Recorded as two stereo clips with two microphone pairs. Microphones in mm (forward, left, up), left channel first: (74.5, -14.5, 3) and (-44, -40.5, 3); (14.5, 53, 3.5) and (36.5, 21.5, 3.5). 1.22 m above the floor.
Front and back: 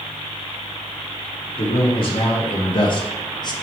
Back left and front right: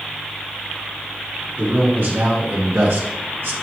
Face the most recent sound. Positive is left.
turn(degrees=-40)